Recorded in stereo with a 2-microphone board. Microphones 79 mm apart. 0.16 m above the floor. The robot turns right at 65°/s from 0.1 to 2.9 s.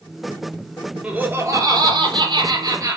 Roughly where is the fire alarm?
I don't hear a fire alarm.